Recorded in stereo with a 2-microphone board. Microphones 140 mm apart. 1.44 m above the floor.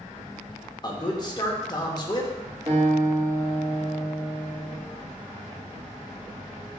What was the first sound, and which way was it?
A man speaking, 30° left (ahead or behind).